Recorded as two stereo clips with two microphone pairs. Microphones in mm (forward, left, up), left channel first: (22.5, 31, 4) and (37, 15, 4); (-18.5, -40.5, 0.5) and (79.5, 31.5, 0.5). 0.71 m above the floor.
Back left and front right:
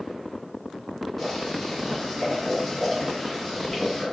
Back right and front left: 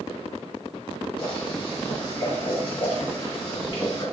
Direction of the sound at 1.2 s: 150° right.